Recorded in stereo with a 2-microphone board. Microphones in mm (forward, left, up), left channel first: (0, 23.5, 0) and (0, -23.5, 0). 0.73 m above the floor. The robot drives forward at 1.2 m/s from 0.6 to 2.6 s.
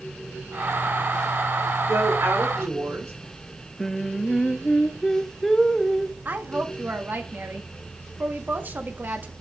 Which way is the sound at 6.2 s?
40° right (ahead or behind).